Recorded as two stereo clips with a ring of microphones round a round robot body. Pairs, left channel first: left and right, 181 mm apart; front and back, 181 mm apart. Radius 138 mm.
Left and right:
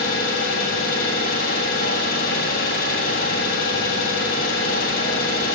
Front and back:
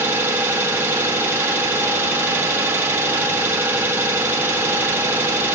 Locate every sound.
0.0 s an engine running: 105° left, 1.6 m